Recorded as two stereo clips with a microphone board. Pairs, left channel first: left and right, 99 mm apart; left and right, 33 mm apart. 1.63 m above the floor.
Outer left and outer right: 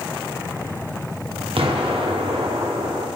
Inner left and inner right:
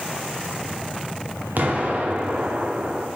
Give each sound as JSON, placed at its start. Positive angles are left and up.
{"t": 1.6, "sound": "an explosion", "side_deg": -60, "distance_m": 0.7}